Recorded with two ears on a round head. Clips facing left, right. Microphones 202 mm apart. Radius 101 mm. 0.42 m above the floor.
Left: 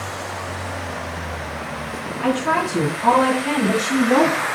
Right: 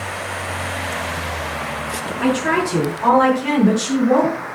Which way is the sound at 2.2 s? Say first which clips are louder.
Right 3 dB; 80° right.